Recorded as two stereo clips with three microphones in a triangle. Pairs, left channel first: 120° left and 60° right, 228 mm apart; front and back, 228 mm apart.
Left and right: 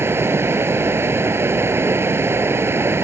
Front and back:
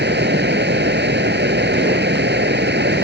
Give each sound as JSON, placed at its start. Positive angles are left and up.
{"t": 0.0, "sound": "running water", "azimuth_deg": -140}